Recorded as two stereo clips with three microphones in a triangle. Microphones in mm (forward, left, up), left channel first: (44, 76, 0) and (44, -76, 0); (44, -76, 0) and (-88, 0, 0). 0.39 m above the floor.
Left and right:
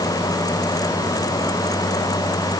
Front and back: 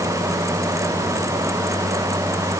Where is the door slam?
No door slam in this recording.